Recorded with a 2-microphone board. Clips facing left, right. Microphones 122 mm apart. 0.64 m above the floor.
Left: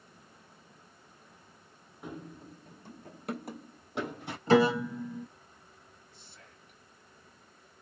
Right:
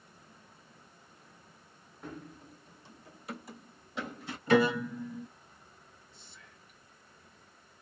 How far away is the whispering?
About 1.9 m.